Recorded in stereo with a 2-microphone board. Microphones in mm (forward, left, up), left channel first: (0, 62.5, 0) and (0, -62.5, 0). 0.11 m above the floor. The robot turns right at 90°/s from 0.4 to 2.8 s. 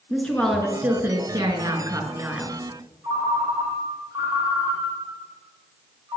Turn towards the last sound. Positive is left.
turn(degrees=-30)  # may be behind; listen again after turning